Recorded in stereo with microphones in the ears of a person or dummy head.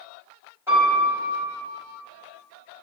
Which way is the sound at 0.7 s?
15° right (ahead or behind).